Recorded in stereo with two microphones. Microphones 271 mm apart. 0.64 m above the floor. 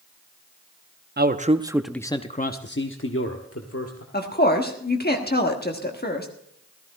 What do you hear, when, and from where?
1.2 s a man speaking: 40° right (ahead or behind), 0.7 m; by 4.0 s 60° left (ahead or behind), 1.5 m
4.1 s a woman speaking: 35° left (ahead or behind), 1.4 m